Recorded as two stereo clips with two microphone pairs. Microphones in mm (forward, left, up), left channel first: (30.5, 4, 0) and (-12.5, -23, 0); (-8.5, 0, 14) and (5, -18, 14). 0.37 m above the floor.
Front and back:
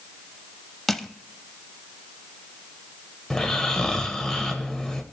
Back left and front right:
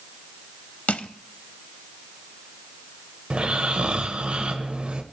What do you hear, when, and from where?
0.9 s crushing: 120° left, 0.5 m
3.3 s snoring: 40° right, 1.2 m